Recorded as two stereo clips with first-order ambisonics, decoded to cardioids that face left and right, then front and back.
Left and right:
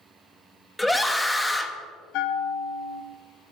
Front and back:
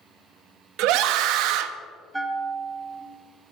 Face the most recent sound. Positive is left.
turn(degrees=95)